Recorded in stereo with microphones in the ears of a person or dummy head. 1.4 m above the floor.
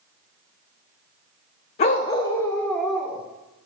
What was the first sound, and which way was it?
A dog barking, 35° left (ahead or behind).